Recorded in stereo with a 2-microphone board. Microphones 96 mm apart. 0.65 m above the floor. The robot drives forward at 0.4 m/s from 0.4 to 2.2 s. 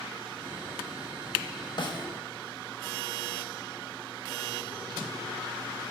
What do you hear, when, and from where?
1.8 s a snare drum: 55° left (ahead or behind), 0.8 m; by 2.1 s 50° left (ahead or behind), 0.8 m